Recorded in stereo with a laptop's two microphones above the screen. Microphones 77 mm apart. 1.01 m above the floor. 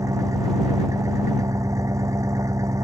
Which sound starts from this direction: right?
An engine running, at 0.0 s.